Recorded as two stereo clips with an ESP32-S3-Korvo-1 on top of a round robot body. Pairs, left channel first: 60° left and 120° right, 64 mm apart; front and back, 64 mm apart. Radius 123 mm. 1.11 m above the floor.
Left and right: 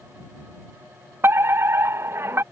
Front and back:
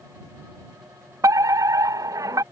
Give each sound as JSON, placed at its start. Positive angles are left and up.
{"t": 1.2, "sound": "a fire alarm", "azimuth_deg": -165}